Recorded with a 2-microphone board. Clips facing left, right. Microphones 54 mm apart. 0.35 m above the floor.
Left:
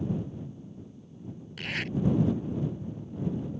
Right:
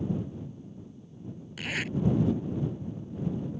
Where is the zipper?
5° right (ahead or behind).